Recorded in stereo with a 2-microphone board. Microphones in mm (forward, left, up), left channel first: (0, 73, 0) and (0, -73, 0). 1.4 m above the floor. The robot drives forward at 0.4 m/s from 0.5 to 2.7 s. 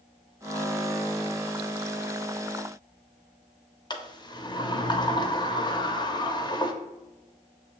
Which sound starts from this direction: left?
A sliding door, at 3.9 s.